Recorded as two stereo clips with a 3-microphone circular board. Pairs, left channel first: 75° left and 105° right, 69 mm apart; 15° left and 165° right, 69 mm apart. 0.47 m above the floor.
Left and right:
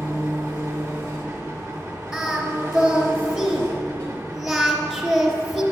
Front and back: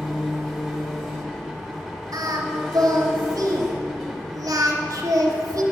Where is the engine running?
70° right, 1.4 m.